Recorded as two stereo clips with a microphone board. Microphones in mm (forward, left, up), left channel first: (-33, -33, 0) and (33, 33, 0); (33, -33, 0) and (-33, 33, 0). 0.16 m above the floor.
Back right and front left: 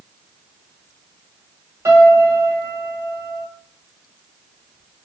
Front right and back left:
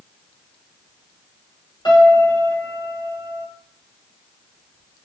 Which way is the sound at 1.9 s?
10° right.